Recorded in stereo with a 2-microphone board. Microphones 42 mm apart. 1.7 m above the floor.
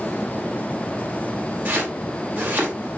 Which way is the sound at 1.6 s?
45° right (ahead or behind).